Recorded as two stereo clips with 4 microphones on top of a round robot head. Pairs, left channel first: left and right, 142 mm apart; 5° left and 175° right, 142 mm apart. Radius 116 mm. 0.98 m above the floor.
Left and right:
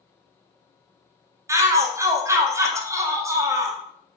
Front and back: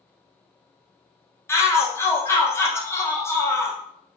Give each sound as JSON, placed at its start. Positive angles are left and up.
{"t": 1.5, "sound": "a shout", "azimuth_deg": -45, "distance_m": 0.7}